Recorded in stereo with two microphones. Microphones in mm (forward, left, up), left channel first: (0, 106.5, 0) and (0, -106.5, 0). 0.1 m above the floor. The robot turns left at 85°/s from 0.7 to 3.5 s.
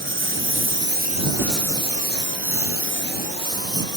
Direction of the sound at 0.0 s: 65° right (ahead or behind).